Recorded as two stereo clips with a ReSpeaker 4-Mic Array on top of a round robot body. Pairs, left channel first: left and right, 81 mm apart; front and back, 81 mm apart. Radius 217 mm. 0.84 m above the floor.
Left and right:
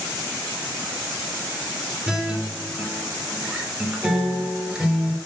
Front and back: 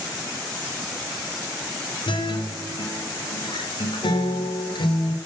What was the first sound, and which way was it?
A guitar, 10° right.